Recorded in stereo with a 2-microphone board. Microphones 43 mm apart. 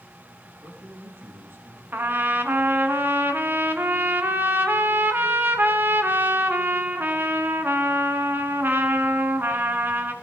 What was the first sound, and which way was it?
A man speaking, 75° right (ahead or behind).